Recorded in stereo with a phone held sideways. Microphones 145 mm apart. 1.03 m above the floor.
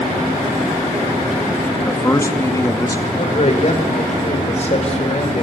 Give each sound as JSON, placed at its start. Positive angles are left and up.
{"t": 1.9, "sound": "a man speaking", "side_deg": 20, "distance_m": 1.8}
{"t": 3.2, "sound": "a man speaking", "side_deg": 50, "distance_m": 4.5}